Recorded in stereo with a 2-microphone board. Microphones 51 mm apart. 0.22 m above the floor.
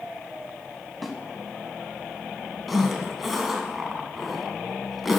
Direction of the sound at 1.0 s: Centre (ahead or behind).